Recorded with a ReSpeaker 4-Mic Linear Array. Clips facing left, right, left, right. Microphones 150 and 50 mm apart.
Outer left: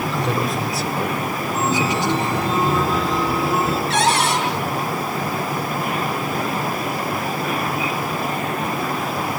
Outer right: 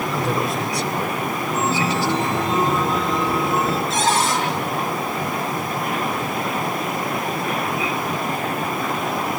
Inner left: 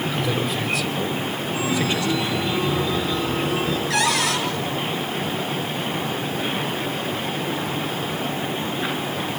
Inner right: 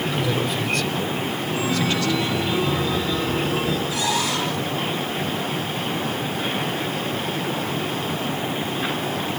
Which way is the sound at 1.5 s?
Centre (ahead or behind).